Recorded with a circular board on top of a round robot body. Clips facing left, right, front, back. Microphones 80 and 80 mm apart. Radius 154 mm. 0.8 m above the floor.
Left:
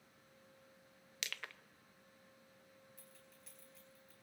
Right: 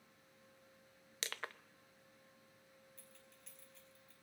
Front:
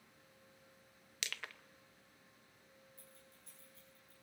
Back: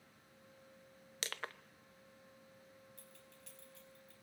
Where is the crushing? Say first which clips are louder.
Right 3 dB, back 3 dB; 135° right, 0.9 m.